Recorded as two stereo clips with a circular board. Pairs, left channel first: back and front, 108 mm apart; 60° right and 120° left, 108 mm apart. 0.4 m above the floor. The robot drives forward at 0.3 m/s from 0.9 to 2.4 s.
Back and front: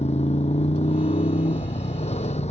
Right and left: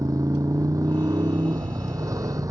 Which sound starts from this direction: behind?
A motorcycle, at 0.0 s.